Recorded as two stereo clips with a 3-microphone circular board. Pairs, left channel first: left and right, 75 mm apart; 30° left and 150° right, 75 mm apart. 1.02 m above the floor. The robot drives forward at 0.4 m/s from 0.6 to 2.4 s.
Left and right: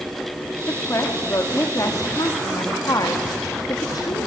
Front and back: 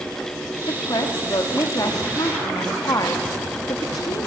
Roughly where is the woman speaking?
Ahead left.